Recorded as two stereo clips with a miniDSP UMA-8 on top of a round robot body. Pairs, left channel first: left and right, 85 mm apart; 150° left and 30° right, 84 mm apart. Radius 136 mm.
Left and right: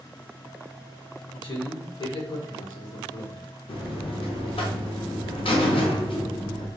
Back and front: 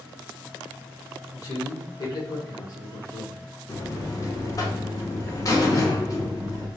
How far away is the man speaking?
About 1.7 m.